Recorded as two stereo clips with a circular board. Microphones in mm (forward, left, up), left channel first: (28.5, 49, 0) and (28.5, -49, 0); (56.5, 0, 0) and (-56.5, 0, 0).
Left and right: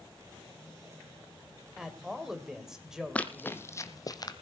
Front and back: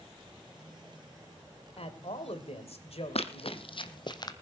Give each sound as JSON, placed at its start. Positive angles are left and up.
{"t": 1.8, "sound": "a man speaking", "azimuth_deg": -5, "distance_m": 2.5}
{"t": 3.1, "sound": "running footsteps", "azimuth_deg": 15, "distance_m": 1.0}